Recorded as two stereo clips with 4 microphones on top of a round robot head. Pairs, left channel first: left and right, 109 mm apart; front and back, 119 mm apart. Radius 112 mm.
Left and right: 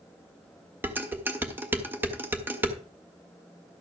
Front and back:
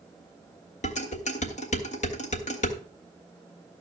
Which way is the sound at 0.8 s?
20° right.